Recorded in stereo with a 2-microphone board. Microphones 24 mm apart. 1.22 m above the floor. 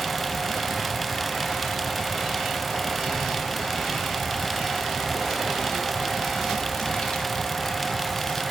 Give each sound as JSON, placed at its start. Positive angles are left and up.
{"t": 3.0, "sound": "a child speaking", "side_deg": 70, "distance_m": 3.0}